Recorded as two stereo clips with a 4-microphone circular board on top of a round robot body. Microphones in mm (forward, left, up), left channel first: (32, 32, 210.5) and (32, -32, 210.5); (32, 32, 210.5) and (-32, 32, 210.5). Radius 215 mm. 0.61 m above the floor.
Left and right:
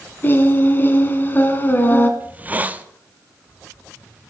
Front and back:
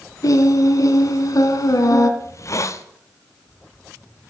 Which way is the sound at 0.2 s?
30° left.